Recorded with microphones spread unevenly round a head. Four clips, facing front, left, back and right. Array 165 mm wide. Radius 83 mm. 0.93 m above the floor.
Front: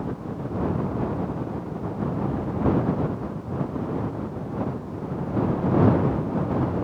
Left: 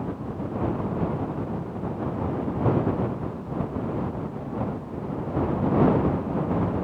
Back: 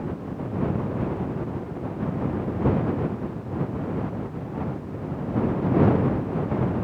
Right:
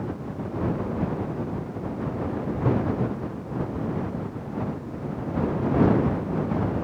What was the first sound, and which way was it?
Only background noise.